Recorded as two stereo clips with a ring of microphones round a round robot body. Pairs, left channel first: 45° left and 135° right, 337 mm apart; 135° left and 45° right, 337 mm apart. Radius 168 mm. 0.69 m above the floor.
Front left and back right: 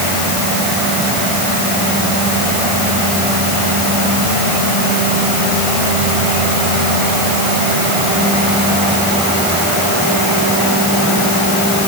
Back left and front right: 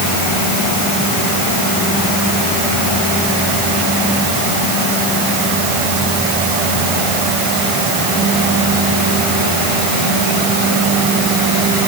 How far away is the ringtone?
I don't hear a ringtone.